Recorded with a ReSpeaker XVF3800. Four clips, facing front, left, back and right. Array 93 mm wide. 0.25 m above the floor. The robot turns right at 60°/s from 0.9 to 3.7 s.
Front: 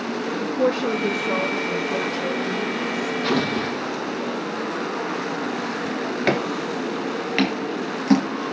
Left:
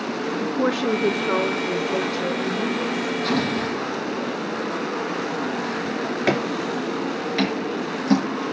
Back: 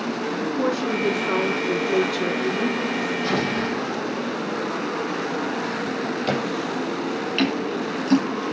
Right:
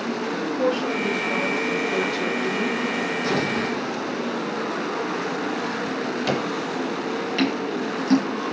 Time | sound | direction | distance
0.4 | a woman speaking | 105° left | 3.5 m
3.2 | an explosion | 20° right | 7.5 m
5.8 | a drawer | 30° left | 3 m
7.4 | scissors | straight ahead | 7 m